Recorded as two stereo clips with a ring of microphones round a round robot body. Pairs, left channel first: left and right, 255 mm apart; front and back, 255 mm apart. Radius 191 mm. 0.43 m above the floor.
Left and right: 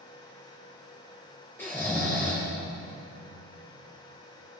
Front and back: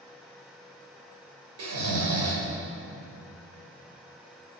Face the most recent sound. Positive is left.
turn(degrees=175)